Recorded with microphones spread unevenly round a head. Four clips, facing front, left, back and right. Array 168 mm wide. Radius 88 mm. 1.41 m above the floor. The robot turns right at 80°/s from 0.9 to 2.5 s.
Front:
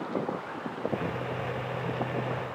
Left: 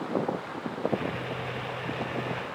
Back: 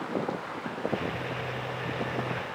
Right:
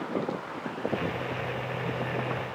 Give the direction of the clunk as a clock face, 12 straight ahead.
I don't hear a clunk.